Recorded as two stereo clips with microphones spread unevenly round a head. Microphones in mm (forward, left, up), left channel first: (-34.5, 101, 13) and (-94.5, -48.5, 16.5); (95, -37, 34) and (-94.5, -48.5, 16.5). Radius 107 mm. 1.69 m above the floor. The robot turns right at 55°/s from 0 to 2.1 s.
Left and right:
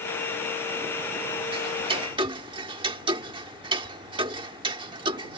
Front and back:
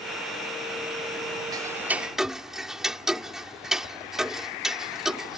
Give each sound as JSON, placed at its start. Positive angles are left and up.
{"t": 1.5, "sound": "ticking", "azimuth_deg": -115}